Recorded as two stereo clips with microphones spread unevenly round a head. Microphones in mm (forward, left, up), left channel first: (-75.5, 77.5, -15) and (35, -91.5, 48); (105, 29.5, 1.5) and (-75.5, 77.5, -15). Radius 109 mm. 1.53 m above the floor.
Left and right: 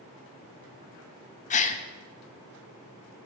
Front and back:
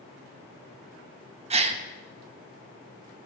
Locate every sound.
1.5 s a gasp: 175° left, 0.9 m